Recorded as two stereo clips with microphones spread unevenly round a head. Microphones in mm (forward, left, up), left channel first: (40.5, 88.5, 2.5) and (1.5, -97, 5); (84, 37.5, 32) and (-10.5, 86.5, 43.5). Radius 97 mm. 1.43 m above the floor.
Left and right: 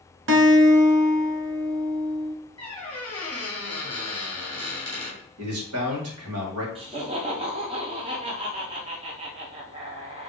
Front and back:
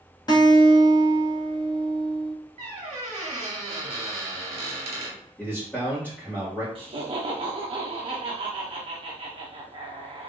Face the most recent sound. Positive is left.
turn(degrees=-165)